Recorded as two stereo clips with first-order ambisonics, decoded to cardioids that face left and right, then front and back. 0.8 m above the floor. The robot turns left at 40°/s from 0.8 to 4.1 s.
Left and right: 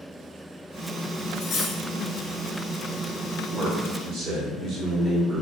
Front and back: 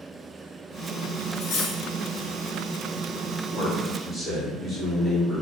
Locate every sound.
1.4 s cutlery clinking: 40° left, 0.6 m; by 1.8 s 20° left, 0.6 m
3.5 s a man speaking: 50° right, 1.2 m; by 5.4 s 75° right, 1.2 m